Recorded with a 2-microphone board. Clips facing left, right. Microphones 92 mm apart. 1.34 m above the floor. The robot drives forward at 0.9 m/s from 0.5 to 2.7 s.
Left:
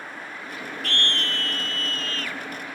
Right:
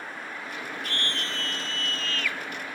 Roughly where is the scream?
Left.